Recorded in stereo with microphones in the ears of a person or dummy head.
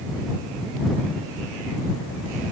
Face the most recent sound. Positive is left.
No sound to turn to.